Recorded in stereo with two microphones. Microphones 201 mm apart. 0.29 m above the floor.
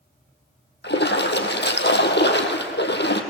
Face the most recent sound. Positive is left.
turn(degrees=60)  # may be behind; listen again after turning